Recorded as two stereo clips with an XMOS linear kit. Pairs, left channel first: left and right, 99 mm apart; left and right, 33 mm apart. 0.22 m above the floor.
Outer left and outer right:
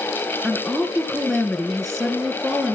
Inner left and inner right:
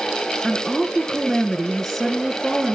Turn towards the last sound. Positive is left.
turn(degrees=0)  # may be behind; listen again after turning